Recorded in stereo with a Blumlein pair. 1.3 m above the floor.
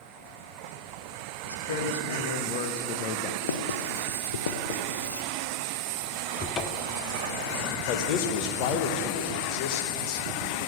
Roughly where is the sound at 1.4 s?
Ahead left.